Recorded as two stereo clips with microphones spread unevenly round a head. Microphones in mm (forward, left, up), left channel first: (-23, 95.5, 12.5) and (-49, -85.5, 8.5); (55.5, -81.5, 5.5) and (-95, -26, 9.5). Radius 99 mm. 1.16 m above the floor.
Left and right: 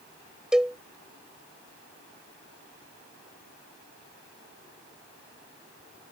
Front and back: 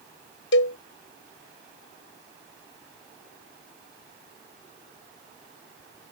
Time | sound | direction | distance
0.5 | a cowbell | 10° right | ?